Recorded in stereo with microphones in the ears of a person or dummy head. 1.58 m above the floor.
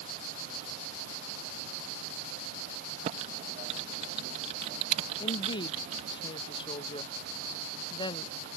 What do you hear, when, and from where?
3.0 s typing on a keyboard: 45° right (ahead or behind)
5.2 s a woman speaking: 35° left (ahead or behind)